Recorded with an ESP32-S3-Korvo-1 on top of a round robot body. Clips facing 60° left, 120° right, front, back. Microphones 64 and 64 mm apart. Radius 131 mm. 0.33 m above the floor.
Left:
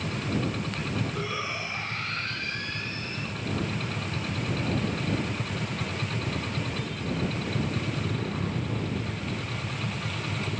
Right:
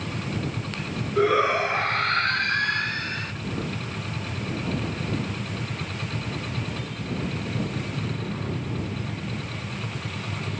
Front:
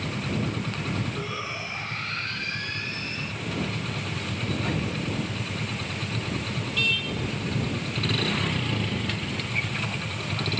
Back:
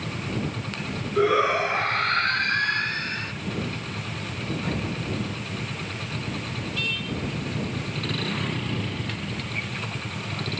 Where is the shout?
155° right; by 3.3 s 145° right.